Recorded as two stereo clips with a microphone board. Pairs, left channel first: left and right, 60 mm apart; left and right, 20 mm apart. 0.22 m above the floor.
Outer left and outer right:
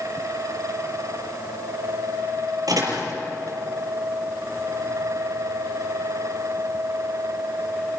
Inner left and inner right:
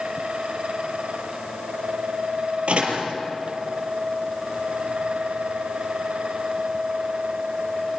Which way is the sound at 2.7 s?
80° right.